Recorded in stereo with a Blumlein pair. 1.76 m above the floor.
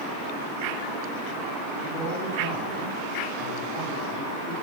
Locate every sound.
1.8 s a man speaking: 35° left, 4.5 m